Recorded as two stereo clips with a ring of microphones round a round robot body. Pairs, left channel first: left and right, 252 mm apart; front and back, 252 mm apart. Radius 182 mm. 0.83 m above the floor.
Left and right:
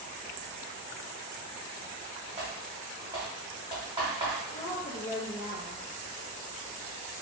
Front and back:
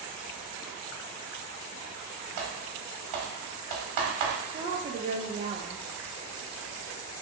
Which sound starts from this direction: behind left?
A woman speaking, at 4.5 s.